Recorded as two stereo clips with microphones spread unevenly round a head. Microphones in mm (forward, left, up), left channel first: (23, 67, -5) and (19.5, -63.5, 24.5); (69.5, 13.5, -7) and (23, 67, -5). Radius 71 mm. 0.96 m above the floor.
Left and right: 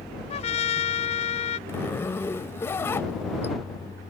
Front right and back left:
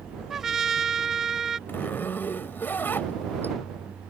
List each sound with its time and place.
0.3 s a trumpet: 45° left
1.7 s a zipper: 15° left